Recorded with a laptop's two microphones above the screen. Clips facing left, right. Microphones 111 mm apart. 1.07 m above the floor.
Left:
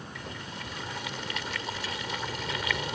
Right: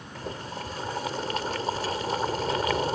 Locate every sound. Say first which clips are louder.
0.1 s boiling: right 9 dB; 40° right (ahead or behind)